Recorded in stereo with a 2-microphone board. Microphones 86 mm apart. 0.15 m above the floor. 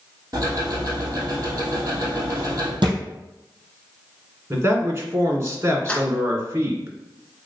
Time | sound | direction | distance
0.3 | ticking | 45° right (ahead or behind) | 2.5 m
2.8 | a thud | 65° right (ahead or behind) | 2.5 m
4.5 | a man speaking | 35° right (ahead or behind) | 1.8 m
5.9 | keys jangling | 15° left (ahead or behind) | 1.2 m